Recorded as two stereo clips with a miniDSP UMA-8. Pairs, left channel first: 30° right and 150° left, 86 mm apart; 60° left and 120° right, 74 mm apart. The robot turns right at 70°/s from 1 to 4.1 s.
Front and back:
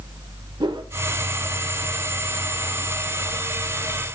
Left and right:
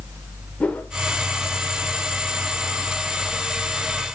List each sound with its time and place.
0.6 s a whoosh: 130° left, 0.9 m